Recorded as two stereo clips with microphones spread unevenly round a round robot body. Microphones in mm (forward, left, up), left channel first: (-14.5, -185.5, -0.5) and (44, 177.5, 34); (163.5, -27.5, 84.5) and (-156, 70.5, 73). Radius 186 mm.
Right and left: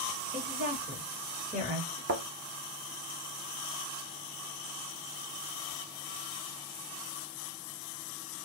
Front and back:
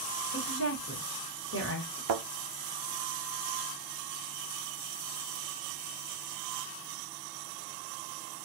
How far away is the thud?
About 0.6 m.